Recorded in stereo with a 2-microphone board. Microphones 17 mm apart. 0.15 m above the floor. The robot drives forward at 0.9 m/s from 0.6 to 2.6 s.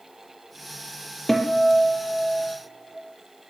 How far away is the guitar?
About 5 m.